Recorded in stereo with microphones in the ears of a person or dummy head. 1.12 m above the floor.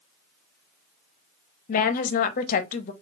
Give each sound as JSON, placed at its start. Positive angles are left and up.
{"t": 1.7, "sound": "a woman speaking", "side_deg": 45, "distance_m": 0.6}